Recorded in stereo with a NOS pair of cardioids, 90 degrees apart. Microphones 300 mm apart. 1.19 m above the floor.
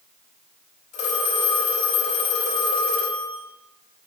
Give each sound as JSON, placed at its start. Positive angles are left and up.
{"t": 0.9, "sound": "a phone ringing", "azimuth_deg": 65, "distance_m": 4.5}